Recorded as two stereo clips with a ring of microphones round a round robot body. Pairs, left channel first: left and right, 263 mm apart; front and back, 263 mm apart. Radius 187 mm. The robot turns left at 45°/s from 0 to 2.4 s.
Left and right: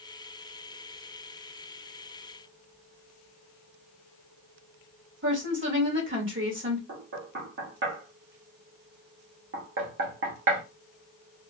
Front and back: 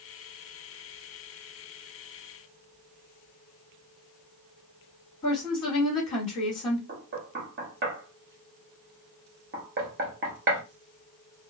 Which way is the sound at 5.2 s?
50° right.